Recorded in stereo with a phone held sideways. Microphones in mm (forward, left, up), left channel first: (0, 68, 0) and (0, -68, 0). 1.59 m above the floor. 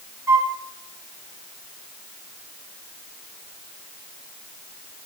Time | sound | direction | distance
0.3 | a flute | 20° right (ahead or behind) | 0.7 m